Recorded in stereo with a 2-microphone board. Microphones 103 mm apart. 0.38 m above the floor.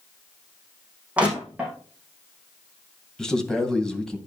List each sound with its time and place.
1.2 s crushing: 10° right (ahead or behind), 4.5 m
3.2 s a man speaking: 5° left (ahead or behind), 2 m